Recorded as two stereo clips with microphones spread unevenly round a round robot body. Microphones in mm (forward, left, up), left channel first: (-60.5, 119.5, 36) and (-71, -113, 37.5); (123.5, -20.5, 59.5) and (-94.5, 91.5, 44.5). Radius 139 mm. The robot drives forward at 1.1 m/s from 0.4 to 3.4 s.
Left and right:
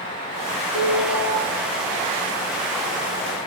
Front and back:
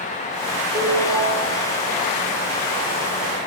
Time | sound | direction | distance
0.7 | a ringtone | 95° left | 5.5 m